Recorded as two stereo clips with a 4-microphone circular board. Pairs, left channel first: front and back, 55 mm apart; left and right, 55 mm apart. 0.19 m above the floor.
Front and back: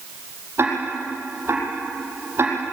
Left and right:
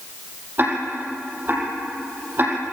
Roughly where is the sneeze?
I don't hear a sneeze.